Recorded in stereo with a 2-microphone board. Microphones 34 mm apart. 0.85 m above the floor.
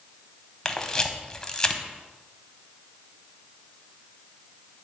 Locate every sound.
0.7 s a camera shutter: 20° left (ahead or behind), 0.7 m